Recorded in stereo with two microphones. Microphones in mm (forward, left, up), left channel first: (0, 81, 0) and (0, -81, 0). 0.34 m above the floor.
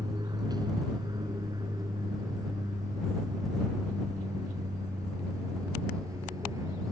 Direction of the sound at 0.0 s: 25° right (ahead or behind).